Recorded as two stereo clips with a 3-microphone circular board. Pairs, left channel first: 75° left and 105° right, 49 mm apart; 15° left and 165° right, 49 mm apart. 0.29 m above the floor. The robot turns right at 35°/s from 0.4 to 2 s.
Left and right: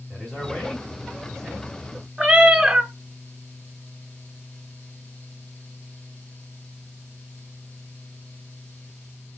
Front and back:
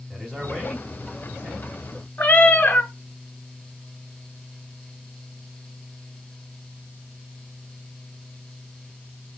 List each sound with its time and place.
0.1 s a man speaking: 115° left, 1.5 m; by 1.7 s 160° left, 1.5 m
2.2 s a cat meowing: 40° right, 0.7 m